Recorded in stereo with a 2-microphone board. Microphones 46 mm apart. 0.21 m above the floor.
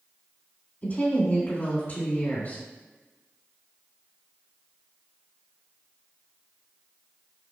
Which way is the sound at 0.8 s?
40° left (ahead or behind).